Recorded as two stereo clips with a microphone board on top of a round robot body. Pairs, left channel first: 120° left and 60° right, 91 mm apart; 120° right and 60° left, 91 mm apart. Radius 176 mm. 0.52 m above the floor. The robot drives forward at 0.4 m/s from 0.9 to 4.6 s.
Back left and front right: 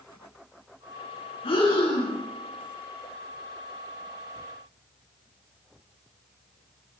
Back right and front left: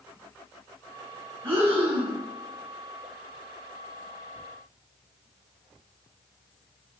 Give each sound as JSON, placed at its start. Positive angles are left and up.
{"t": 1.4, "sound": "breathing", "azimuth_deg": 125, "distance_m": 4.5}